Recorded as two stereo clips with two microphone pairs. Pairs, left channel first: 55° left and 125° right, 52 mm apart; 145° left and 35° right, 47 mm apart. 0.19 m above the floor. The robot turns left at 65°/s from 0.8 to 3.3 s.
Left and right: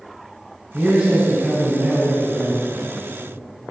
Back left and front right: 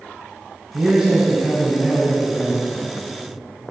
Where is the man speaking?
80° right, 1.4 m; by 2.9 s 140° left, 1.4 m.